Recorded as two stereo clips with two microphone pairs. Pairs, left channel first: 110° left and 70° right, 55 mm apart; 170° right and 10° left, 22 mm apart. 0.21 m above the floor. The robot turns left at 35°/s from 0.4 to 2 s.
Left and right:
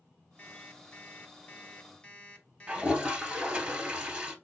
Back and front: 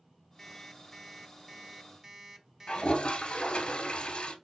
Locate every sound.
0.4 s an alarm clock: 120° left, 0.8 m; by 3.6 s 60° left, 0.8 m
2.7 s a toilet flushing: 140° right, 0.7 m